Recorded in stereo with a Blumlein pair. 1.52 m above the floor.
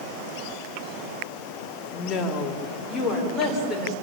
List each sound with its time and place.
1.9 s a woman speaking: 20° left, 4 m; by 3.9 s straight ahead, 6.5 m